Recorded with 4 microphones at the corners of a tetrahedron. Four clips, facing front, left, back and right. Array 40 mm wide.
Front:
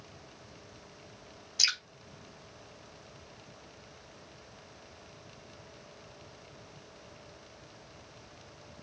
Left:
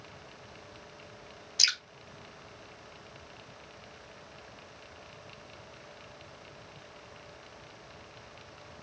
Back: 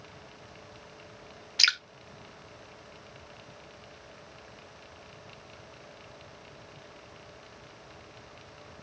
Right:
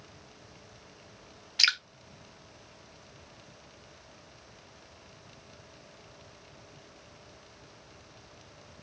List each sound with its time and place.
1.6 s dripping: 145° right, 0.8 m